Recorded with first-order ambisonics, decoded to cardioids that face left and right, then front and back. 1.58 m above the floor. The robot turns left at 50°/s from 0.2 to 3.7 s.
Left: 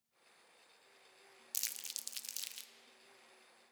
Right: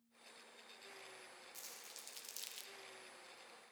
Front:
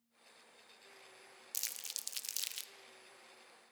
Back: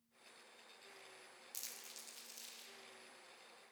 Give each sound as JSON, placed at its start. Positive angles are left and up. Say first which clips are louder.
{"t": 1.5, "sound": "crumpling", "louder": "left 13 dB, front 9 dB", "azimuth_deg": 65, "distance_m": 0.6}